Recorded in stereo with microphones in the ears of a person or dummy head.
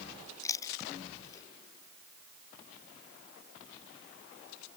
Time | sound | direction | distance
0.4 | chewing | 20° left (ahead or behind) | ?